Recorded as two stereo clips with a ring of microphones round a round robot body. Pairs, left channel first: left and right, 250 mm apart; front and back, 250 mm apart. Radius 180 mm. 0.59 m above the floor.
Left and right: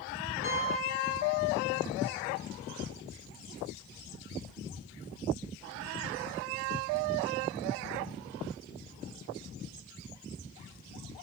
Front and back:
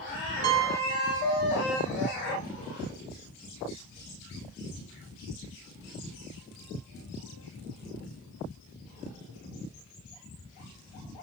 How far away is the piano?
About 0.7 m.